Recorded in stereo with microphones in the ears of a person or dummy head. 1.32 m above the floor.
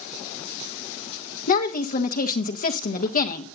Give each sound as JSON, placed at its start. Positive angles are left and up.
{"t": 1.5, "sound": "a woman speaking", "side_deg": 40, "distance_m": 1.5}